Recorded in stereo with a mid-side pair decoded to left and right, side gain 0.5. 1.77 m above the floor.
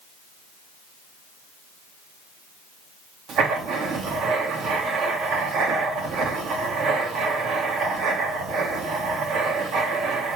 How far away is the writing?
About 2.0 m.